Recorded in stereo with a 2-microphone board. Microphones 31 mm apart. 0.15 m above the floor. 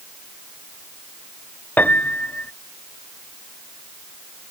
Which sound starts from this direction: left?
A piano, at 1.8 s.